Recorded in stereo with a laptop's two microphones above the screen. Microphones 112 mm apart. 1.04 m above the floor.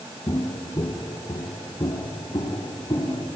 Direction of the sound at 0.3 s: 35° left (ahead or behind).